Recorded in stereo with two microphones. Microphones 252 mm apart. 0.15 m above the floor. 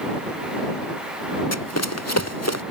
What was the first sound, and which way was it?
Running footsteps, 90° left.